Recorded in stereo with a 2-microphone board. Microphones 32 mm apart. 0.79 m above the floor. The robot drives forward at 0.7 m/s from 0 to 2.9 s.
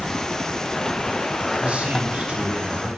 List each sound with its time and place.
1.6 s a man speaking: 45° right (ahead or behind), 4.5 m; by 3.0 s 55° right (ahead or behind), 4 m